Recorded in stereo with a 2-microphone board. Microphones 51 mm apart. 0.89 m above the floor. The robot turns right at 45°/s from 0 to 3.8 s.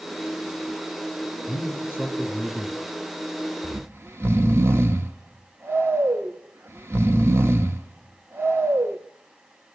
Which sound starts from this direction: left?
A man speaking, at 1.5 s.